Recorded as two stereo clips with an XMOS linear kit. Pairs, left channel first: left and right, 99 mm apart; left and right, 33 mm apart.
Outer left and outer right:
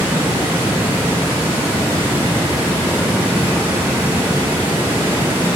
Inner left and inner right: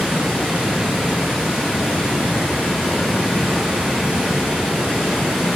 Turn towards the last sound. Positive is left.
turn(degrees=-15)  # may be behind; listen again after turning